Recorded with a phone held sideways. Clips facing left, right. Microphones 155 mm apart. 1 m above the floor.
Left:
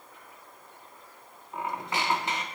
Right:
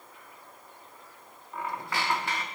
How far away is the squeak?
About 0.7 m.